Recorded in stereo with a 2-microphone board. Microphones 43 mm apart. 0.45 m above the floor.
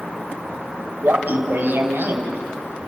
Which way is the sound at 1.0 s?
55° right (ahead or behind).